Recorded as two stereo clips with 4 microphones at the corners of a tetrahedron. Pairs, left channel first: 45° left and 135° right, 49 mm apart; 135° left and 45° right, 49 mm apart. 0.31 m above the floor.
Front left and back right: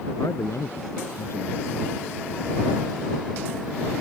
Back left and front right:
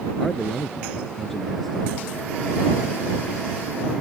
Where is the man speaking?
50° left.